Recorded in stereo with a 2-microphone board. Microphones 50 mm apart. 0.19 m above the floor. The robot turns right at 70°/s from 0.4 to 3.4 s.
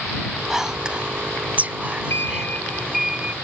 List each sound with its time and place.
0.5 s whispering: 5° right (ahead or behind); by 2.5 s 15° right (ahead or behind)
2.1 s a sliding door: 120° left; by 3.3 s 155° right